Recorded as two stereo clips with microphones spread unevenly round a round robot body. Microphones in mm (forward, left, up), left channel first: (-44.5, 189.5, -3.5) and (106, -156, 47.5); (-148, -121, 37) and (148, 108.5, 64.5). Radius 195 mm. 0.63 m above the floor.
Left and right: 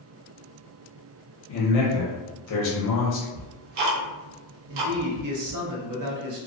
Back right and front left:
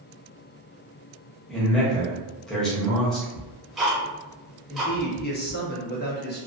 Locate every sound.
1.5 s a man speaking: 135° left, 0.8 m
3.4 s ticking: 50° right, 0.5 m
4.7 s a man speaking: 95° right, 0.6 m